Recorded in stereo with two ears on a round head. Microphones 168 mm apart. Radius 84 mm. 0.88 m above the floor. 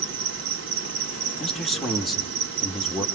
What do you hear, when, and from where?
0.0 s an insect: 75° right (ahead or behind), 2.5 m
1.4 s a man speaking: centre (ahead or behind), 2.5 m